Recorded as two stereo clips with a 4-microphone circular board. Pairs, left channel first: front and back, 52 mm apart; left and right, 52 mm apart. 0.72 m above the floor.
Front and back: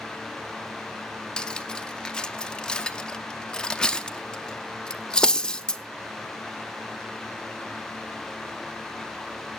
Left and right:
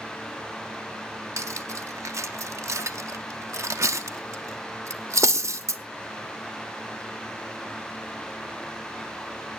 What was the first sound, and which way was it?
Cutlery clinking, 70° right.